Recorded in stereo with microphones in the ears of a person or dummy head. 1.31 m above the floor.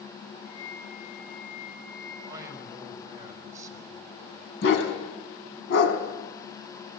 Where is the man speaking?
20° right (ahead or behind), 4.5 m.